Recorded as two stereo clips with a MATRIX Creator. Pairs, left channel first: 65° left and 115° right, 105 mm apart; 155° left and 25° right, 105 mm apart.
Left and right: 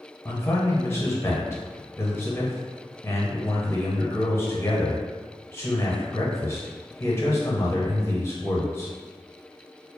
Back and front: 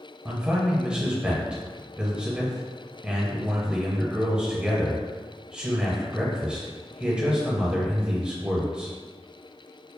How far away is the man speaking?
About 1.0 m.